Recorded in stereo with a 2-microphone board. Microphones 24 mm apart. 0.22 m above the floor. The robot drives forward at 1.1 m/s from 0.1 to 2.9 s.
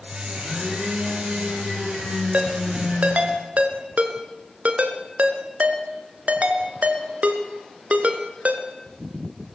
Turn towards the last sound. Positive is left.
turn(degrees=-60)  # may be behind; listen again after turning